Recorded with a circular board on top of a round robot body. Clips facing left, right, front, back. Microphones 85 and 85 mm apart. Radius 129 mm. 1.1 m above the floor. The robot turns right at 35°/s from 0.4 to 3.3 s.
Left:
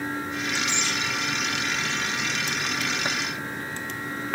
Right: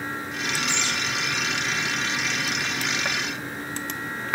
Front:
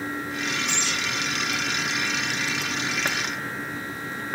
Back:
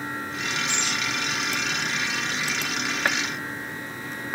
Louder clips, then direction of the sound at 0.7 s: Right 1 dB, even; 10° right.